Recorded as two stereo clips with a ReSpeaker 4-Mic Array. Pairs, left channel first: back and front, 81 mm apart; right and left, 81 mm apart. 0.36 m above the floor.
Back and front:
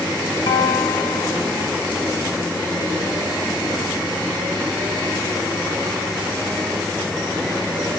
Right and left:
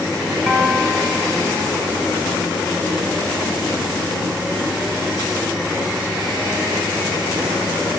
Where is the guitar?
Straight behind, 0.9 m.